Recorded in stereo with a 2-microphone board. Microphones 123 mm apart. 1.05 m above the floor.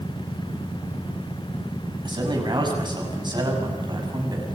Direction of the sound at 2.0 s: 40° right (ahead or behind).